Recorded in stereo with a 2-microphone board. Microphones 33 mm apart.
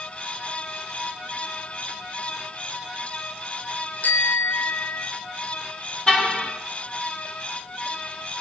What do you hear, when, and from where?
4.0 s a bicycle bell: 70° left (ahead or behind), 3.5 m
6.1 s a car horn: 30° left (ahead or behind), 5 m